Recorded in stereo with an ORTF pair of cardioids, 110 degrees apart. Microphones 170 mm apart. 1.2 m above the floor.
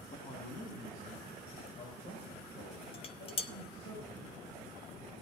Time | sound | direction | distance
0.1 | a man speaking | 50° left | 2.5 m
2.9 | dishes clattering | 35° left | 0.7 m